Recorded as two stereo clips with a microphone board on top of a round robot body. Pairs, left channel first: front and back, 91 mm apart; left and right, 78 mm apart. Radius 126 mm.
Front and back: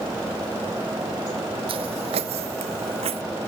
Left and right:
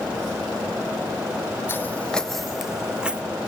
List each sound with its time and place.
1.7 s footsteps: 150° left; by 3.2 s 165° right